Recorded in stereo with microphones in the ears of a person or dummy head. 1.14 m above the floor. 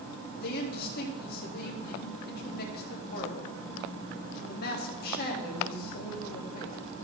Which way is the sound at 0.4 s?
55° left (ahead or behind).